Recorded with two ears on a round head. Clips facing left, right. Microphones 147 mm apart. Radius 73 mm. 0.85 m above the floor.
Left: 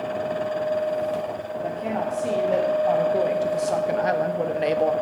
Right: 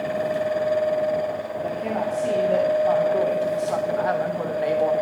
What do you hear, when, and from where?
1.6 s a woman speaking: 5° left (ahead or behind), 1.5 m; by 4.9 s 25° left (ahead or behind), 0.8 m